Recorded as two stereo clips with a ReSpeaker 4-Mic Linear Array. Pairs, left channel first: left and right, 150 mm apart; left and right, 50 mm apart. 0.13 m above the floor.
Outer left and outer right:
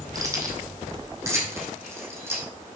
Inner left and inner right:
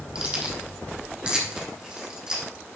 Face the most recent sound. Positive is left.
turn(degrees=-15)  # may be behind; listen again after turning